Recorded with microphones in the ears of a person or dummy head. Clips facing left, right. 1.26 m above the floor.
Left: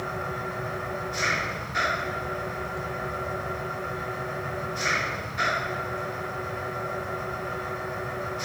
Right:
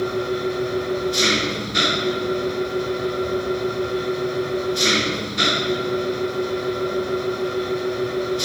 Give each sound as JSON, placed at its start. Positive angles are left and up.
{"t": 0.0, "sound": "an engine running", "side_deg": -50}